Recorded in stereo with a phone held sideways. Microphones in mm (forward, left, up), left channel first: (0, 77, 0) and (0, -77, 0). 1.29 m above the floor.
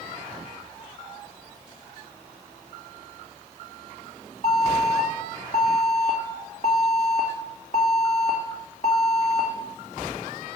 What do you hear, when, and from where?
4.4 s an alarm: 50° left (ahead or behind), 2 m